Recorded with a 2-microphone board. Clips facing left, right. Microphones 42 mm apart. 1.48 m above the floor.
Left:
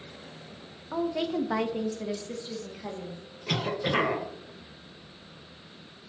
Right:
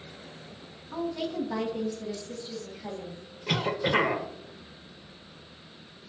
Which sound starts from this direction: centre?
A cough, at 3.5 s.